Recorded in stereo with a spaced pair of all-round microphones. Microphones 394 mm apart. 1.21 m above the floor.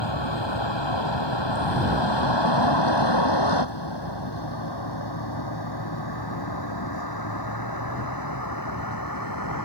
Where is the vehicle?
90° left; by 9.7 s 50° left (ahead or behind).